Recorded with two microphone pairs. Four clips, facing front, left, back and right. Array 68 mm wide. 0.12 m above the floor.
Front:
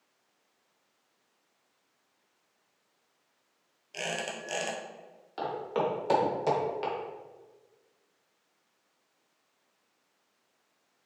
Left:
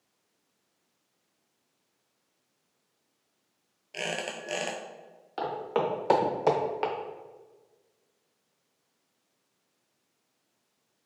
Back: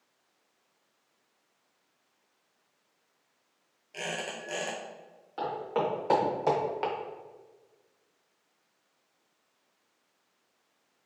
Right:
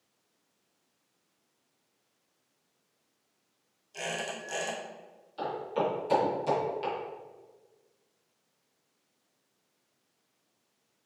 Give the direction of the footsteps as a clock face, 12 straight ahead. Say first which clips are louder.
Left 2 dB, even; 9 o'clock.